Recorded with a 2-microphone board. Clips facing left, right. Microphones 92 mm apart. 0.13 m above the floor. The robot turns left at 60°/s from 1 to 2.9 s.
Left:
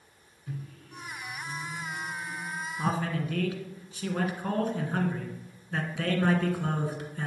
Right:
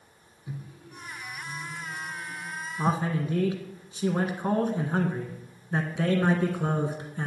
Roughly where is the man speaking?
Right.